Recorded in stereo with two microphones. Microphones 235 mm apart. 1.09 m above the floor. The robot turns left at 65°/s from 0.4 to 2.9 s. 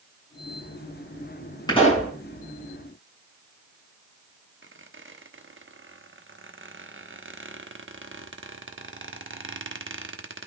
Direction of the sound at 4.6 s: 60° right (ahead or behind).